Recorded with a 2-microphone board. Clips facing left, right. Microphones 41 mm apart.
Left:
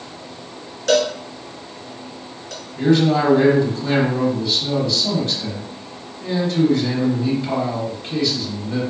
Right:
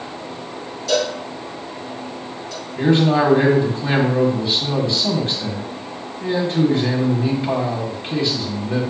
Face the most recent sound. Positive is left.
turn(degrees=-30)  # may be behind; listen again after turning